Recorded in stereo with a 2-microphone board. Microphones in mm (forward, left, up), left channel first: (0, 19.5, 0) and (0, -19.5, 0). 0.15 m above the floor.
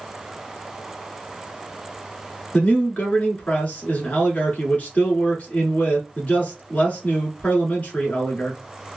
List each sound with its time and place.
2.5 s a man speaking: 40° left (ahead or behind), 1.5 m